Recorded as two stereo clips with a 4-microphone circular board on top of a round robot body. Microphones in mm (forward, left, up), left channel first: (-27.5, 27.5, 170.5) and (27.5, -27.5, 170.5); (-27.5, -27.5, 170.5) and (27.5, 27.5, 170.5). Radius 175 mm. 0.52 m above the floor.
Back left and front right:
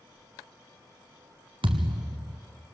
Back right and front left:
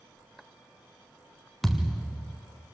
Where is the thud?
45° right, 0.7 m.